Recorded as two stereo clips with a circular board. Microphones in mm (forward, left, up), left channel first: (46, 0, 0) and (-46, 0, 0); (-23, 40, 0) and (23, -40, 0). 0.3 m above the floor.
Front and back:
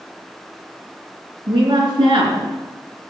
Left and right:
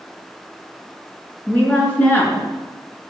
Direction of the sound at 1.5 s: 170° right.